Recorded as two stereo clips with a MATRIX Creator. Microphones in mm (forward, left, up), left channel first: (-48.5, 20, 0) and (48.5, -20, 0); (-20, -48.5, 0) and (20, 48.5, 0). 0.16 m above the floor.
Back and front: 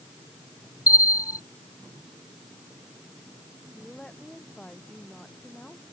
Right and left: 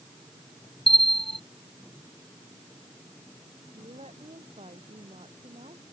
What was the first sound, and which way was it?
A bell, 145° right.